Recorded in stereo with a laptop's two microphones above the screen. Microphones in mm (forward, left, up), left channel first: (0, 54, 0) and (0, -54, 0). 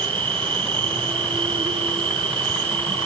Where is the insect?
50° right (ahead or behind), 1.6 m.